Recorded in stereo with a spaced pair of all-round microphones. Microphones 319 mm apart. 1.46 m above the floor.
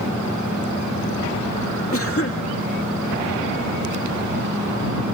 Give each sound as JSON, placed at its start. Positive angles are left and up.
{"t": 1.9, "sound": "a cough", "side_deg": 45}